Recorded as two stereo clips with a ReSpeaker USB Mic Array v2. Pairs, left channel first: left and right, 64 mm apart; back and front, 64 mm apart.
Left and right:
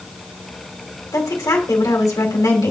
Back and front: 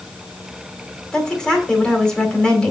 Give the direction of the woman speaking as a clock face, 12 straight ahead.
9 o'clock.